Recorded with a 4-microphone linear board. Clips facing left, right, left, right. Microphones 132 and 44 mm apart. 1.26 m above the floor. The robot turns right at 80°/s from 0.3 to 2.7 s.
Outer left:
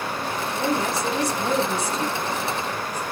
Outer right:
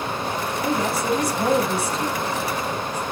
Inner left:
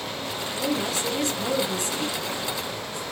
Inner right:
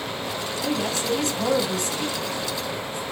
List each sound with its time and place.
0.6 s a woman speaking: straight behind, 6 m; by 3.0 s 10° right, 6 m